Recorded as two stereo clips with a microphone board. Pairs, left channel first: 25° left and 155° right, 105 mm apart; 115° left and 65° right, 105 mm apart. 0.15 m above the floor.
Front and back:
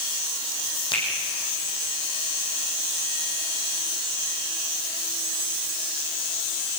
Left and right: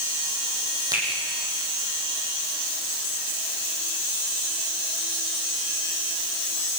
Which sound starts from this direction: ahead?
A finger snap, at 0.9 s.